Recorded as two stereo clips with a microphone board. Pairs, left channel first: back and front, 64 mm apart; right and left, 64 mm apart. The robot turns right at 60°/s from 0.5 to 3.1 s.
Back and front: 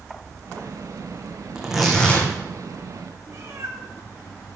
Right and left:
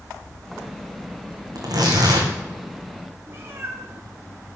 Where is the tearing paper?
75° left, 4.5 m; by 2.3 s 120° left, 4.5 m.